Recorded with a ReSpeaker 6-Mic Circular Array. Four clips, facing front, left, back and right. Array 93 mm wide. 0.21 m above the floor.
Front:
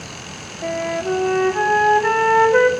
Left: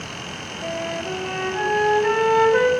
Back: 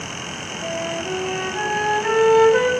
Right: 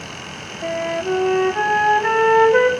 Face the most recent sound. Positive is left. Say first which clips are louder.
# right 6 dB, front 5 dB
turn(degrees=-45)